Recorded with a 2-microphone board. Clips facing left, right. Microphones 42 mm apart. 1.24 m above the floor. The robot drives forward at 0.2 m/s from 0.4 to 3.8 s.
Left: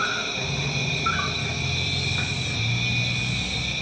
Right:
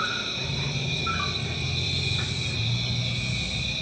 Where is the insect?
80° left, 1.0 m; by 3.8 s 65° left (ahead or behind), 1.1 m.